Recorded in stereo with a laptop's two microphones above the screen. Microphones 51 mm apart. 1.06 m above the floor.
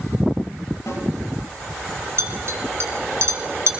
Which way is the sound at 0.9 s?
65° left (ahead or behind).